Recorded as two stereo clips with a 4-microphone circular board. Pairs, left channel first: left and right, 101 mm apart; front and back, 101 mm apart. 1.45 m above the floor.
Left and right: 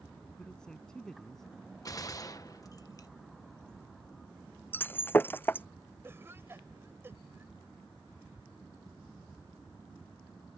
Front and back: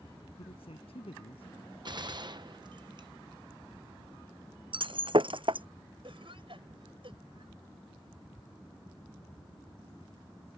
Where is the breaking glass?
155° left.